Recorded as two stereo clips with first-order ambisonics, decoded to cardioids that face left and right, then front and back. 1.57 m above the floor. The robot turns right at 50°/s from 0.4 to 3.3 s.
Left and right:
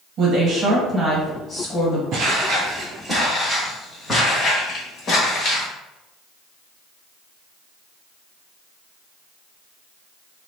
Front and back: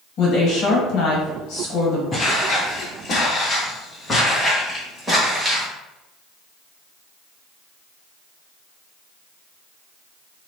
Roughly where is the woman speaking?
Ahead right.